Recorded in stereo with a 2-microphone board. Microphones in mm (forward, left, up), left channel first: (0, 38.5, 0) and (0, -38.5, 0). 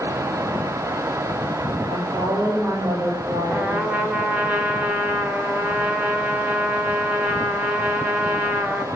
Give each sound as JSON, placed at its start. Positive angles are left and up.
{"t": 1.9, "sound": "a woman speaking", "side_deg": -85, "distance_m": 3.5}
{"t": 3.5, "sound": "a trumpet", "side_deg": -20, "distance_m": 1.1}